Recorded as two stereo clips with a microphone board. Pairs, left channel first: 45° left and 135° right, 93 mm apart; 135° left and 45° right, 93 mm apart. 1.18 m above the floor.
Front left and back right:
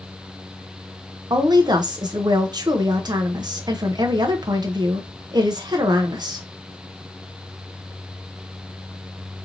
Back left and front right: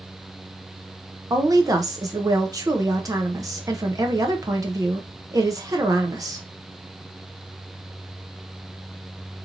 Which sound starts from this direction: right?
A woman speaking, at 1.3 s.